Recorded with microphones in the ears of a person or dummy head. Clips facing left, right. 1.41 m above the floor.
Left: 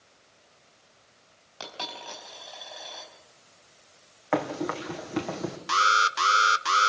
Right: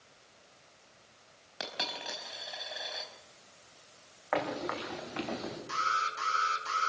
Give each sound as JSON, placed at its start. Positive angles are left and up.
{"t": 1.6, "sound": "a dropped coin", "side_deg": -25, "distance_m": 4.5}
{"t": 4.3, "sound": "running footsteps", "side_deg": 45, "distance_m": 5.0}
{"t": 5.7, "sound": "an alarm", "side_deg": 90, "distance_m": 1.2}